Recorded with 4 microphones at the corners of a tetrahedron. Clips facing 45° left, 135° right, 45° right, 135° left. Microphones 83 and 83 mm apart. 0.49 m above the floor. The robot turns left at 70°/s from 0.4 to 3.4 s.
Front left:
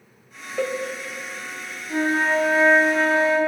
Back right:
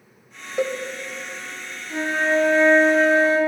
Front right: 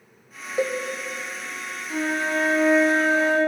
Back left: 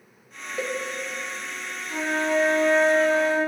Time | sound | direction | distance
0.6 | a cowbell | 70° right | 0.5 m
1.9 | a flute | 20° left | 3.5 m